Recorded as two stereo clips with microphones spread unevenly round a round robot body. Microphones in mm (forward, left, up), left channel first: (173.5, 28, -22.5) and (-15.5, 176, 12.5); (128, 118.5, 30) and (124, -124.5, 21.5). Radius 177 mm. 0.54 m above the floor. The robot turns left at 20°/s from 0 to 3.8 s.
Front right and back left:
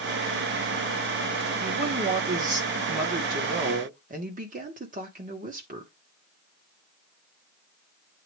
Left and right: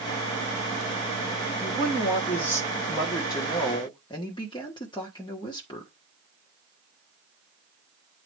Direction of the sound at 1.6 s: Straight behind.